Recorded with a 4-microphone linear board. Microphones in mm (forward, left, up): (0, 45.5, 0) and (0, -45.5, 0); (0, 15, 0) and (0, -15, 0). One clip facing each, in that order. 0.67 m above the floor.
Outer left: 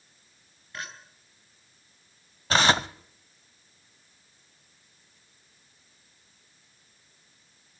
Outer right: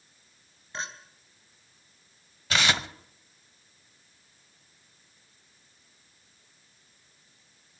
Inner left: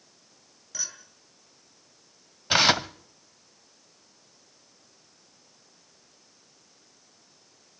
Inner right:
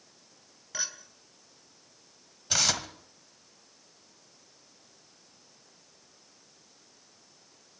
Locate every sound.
0.7 s a clink: 25° right (ahead or behind), 3 m
2.5 s tearing paper: 40° left (ahead or behind), 0.7 m